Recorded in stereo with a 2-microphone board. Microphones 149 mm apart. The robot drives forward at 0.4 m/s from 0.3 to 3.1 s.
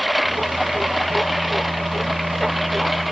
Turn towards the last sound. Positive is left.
turn(degrees=0)  # may be behind; listen again after turning